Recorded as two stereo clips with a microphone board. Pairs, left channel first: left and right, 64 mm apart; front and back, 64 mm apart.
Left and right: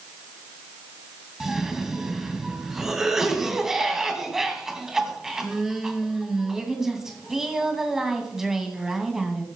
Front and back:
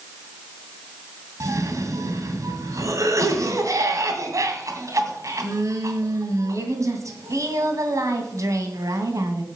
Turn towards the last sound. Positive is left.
turn(degrees=-175)